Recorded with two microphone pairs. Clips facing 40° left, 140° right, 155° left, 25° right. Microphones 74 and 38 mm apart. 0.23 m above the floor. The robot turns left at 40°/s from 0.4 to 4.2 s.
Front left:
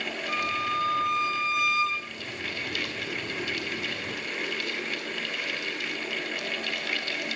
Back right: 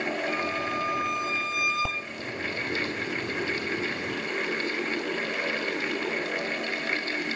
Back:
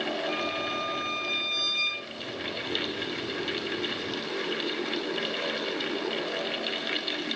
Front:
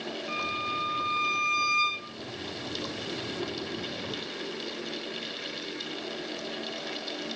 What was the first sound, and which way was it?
A violin, straight ahead.